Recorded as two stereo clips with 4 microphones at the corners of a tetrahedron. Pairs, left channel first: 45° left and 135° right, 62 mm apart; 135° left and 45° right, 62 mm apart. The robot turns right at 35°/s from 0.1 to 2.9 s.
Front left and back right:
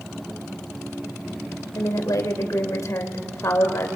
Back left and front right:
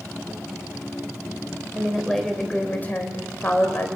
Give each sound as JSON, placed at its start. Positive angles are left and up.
{"t": 1.8, "sound": "a woman speaking", "azimuth_deg": 35, "distance_m": 2.5}